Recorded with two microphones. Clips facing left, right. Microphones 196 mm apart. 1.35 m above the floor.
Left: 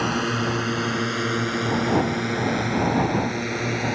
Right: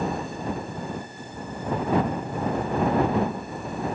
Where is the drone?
80° left; by 4.0 s 90° left.